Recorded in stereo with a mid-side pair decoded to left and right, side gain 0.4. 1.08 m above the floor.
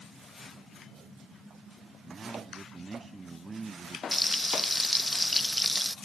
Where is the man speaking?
25° right.